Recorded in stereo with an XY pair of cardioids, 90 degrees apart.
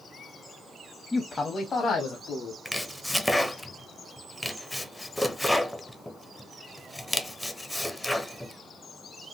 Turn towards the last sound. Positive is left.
turn(degrees=10)